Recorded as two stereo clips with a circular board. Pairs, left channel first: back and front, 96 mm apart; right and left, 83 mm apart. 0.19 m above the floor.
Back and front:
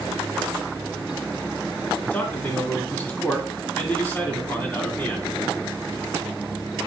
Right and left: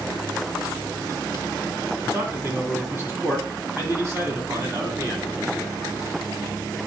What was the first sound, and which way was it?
A man speaking, 120° left.